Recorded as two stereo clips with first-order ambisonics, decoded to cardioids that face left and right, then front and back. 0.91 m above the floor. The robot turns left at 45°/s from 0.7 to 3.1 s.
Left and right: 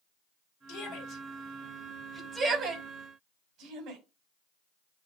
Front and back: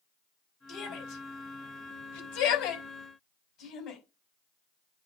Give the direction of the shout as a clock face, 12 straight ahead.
10 o'clock.